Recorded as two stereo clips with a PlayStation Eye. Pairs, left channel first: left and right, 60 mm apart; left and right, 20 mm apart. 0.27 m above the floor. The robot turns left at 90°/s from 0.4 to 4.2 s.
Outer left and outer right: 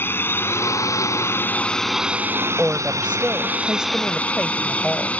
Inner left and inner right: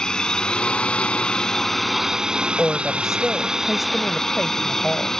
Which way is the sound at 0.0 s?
135° left.